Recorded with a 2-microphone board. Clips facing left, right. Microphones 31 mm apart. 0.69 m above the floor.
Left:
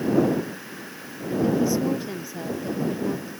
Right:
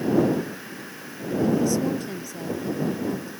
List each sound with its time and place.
1.4 s a woman speaking: 15° left (ahead or behind)